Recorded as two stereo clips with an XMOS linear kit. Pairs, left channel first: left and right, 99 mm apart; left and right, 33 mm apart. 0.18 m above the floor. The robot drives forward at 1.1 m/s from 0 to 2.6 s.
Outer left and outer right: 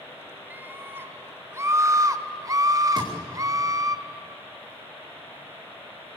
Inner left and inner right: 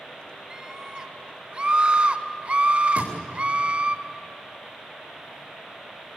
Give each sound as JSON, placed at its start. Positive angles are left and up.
{"t": 0.5, "sound": "a scream", "side_deg": -20, "distance_m": 2.5}
{"t": 3.0, "sound": "a thud", "side_deg": -50, "distance_m": 8.0}